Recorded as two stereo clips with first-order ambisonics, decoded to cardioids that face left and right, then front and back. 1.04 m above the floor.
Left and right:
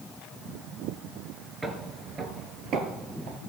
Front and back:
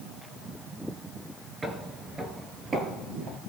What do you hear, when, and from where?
1.6 s footsteps: 135° right, 1.0 m; by 3.4 s 120° right, 1.7 m